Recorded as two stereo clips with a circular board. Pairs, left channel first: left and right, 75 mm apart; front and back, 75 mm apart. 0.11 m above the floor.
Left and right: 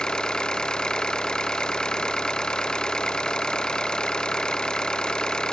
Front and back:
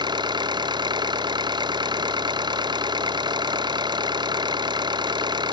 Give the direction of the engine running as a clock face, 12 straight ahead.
6 o'clock.